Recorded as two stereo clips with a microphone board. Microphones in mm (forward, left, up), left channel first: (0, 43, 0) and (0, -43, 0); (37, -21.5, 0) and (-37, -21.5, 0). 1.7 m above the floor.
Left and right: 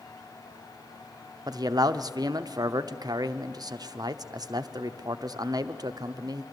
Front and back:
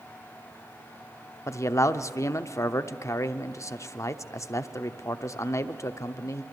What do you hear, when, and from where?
1.5 s a man speaking: 50° right, 0.8 m